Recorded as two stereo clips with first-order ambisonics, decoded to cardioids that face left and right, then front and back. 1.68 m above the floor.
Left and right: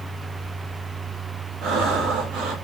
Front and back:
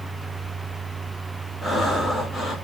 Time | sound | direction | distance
1.6 | breathing | 80° right | 0.6 m